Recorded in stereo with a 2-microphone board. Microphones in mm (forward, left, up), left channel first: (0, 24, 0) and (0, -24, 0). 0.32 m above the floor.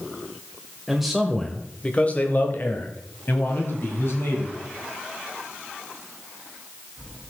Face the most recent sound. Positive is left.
turn(degrees=55)  # may be behind; listen again after turning